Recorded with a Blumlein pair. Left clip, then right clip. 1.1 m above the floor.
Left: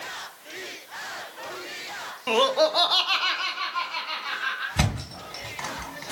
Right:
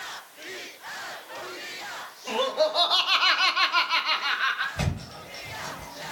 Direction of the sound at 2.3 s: 25° left.